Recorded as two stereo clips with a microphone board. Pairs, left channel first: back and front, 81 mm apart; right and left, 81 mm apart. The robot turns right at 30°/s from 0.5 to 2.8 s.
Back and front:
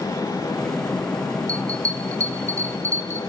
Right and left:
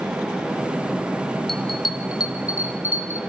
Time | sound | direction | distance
1.5 | a bell | 10° right | 2.0 m